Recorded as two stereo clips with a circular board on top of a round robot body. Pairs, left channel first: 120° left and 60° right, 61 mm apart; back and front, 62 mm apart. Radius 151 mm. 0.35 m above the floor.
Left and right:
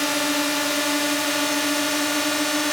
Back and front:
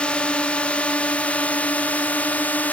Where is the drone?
145° right; by 2.7 s 155° right.